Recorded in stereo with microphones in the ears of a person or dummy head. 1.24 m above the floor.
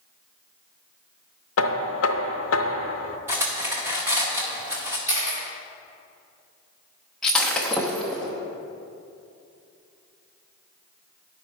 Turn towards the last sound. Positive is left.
turn(degrees=0)  # may be behind; listen again after turning